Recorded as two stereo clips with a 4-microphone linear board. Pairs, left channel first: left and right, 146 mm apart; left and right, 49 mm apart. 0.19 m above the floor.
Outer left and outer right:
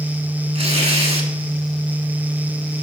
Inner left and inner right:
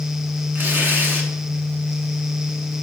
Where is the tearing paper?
45° right (ahead or behind), 1.6 m.